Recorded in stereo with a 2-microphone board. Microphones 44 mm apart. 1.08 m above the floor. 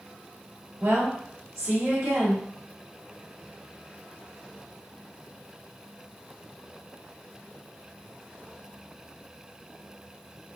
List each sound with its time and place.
0.8 s a woman speaking: 75° right (ahead or behind), 2.0 m